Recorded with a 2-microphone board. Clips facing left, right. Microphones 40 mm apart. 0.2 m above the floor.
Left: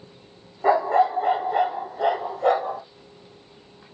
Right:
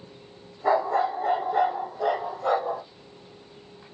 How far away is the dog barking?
About 2.5 m.